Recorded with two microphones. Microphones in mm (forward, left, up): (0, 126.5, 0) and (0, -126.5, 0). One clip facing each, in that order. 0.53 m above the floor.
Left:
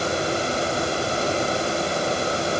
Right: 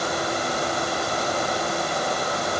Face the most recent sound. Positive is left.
No sound to turn to.